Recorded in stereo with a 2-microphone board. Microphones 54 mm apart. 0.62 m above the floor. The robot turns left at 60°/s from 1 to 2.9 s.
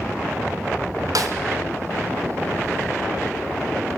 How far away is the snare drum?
About 2 m.